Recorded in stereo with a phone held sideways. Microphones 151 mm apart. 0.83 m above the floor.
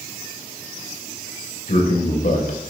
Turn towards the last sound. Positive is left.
turn(degrees=65)  # may be behind; listen again after turning